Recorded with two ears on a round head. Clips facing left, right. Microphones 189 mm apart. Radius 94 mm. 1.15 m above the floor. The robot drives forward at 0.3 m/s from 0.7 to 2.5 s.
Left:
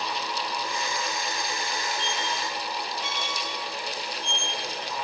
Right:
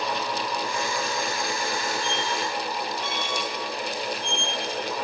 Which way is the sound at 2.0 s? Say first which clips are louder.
Right 4 dB; 40° right (ahead or behind).